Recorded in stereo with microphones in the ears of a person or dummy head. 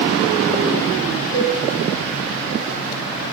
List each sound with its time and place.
1.3 s a cowbell: 20° left (ahead or behind), 8 m